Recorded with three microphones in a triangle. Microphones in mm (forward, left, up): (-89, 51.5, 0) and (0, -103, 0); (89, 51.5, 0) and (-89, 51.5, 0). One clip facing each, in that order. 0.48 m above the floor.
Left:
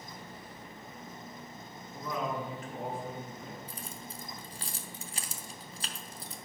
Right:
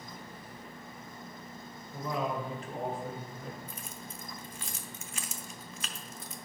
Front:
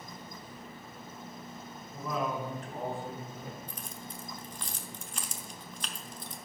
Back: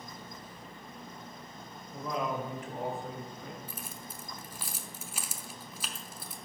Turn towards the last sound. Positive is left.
turn(degrees=100)